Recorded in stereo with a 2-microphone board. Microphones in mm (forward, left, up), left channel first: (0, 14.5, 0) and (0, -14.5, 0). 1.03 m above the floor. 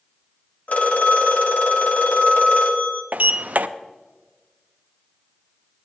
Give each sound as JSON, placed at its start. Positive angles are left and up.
{"t": 0.7, "sound": "a phone ringing", "side_deg": 65, "distance_m": 1.6}
{"t": 3.1, "sound": "a sliding door", "side_deg": -65, "distance_m": 0.5}